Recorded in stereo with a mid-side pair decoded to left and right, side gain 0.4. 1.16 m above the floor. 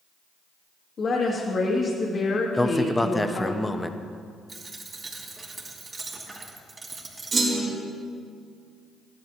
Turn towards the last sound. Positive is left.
turn(degrees=-50)